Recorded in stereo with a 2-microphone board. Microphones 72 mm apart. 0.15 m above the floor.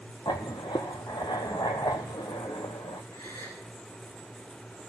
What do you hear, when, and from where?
0.2 s writing: 80° left, 1.2 m
3.1 s a gasp: 60° left (ahead or behind), 7.5 m